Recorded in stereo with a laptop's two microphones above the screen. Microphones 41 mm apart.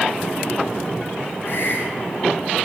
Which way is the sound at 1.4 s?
55° left (ahead or behind).